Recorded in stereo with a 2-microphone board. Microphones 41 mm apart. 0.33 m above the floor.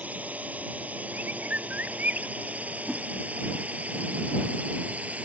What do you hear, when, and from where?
0.0 s a drone: 40° right (ahead or behind)
1.1 s a bird: 45° right (ahead or behind)
2.9 s a whoosh: 10° right (ahead or behind)